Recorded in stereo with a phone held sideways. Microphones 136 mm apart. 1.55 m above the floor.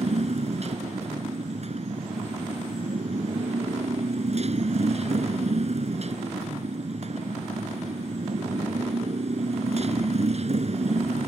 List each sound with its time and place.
0.0 s a motorcycle: 55° right (ahead or behind)